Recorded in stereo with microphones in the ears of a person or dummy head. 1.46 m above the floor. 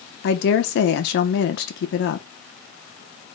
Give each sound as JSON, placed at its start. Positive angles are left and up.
{"t": 0.2, "sound": "a woman speaking", "side_deg": 55, "distance_m": 0.6}